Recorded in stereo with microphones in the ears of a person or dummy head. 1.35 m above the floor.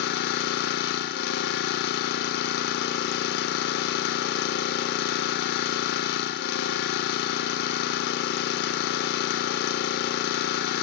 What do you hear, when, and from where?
0.0 s an engine running: 60° left (ahead or behind), 1.6 m